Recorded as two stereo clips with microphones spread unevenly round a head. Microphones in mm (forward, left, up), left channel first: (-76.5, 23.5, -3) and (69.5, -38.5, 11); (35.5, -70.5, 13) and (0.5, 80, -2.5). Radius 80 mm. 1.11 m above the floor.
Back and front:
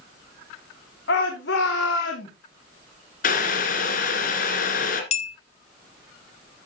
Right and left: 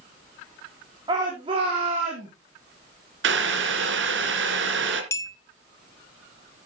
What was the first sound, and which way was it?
A shout, 170° left.